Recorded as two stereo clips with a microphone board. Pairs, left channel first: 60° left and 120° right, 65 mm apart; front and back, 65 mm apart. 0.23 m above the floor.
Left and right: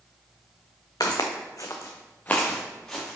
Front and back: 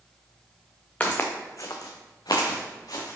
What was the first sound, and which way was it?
Footsteps, 65° left.